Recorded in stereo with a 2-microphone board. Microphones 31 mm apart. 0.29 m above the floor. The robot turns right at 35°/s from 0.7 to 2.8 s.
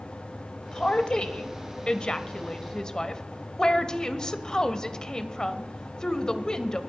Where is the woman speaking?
25° left (ahead or behind), 0.9 m; by 6.8 s 20° left (ahead or behind), 0.9 m.